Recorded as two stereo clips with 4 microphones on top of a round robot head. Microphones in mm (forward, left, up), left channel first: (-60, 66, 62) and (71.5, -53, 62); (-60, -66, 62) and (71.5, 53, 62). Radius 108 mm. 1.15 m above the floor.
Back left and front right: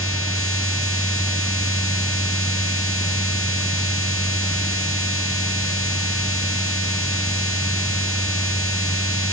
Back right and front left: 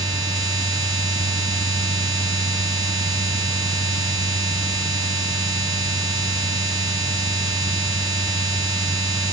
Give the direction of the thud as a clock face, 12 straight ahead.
I don't hear a thud.